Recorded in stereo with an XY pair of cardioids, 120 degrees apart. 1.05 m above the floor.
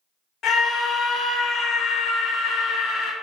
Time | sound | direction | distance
0.4 | a scream | 55° left | 0.9 m